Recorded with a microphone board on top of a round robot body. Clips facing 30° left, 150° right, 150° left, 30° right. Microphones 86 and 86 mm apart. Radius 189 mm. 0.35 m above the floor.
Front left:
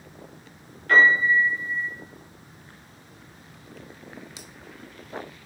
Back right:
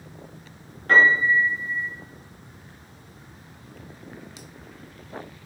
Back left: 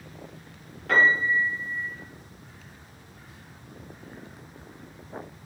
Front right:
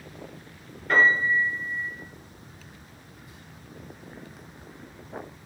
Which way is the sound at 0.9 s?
155° left.